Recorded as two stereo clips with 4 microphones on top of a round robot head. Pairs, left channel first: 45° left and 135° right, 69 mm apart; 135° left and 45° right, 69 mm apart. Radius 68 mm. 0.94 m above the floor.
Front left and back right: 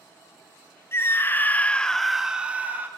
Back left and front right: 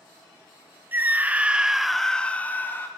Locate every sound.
0.9 s a scream: 5° left, 0.9 m; by 2.9 s 175° left, 0.8 m